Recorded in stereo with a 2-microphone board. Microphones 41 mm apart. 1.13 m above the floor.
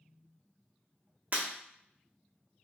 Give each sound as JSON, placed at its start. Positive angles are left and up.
{"t": 1.3, "sound": "breaking glass", "side_deg": -45, "distance_m": 1.0}